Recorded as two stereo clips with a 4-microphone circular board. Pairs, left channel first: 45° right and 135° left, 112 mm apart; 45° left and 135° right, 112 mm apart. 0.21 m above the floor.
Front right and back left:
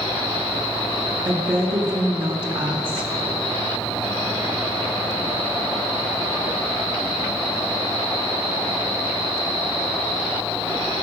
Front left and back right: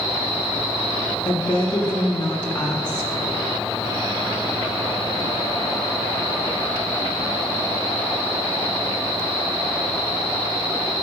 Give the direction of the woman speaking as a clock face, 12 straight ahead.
8 o'clock.